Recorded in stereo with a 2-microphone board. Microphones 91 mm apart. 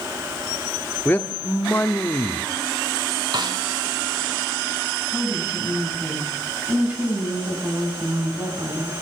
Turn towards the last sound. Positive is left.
turn(degrees=-15)  # may be behind; listen again after turning